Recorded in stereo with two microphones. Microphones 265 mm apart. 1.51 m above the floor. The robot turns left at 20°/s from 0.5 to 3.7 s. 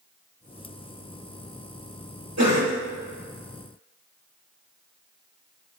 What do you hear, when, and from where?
2.4 s a cough: 70° right (ahead or behind), 1.8 m; by 2.8 s 60° right (ahead or behind), 1.8 m